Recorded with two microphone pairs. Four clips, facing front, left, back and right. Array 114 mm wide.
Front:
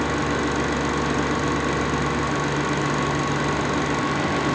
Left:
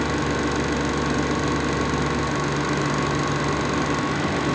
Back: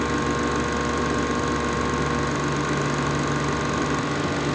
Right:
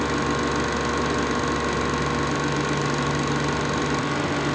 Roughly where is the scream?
No scream in this recording.